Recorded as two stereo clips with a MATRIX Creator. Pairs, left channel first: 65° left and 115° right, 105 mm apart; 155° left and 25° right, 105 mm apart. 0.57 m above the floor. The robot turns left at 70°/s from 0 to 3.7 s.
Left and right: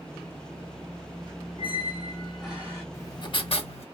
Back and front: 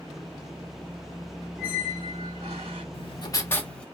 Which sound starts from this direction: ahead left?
A squeak, at 1.6 s.